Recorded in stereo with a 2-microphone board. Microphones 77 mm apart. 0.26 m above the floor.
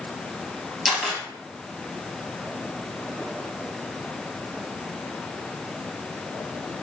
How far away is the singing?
No singing in this recording.